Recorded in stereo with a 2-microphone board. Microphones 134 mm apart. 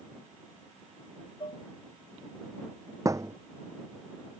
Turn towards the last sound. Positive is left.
turn(degrees=-25)  # may be behind; listen again after turning